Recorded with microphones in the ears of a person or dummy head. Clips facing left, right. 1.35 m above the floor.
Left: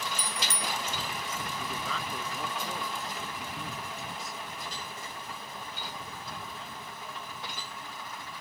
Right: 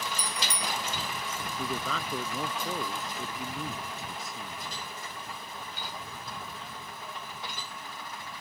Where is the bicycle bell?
20° right (ahead or behind).